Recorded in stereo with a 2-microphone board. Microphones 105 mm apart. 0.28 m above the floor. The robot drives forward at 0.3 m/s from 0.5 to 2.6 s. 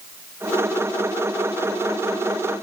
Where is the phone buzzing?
No phone buzzing in this recording.